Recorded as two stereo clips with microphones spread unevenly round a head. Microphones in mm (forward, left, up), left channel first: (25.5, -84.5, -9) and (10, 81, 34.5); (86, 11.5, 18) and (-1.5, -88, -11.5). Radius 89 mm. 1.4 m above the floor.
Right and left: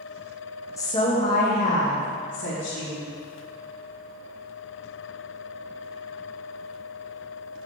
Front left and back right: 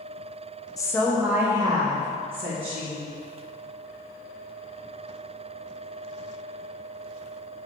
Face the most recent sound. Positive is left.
turn(degrees=-100)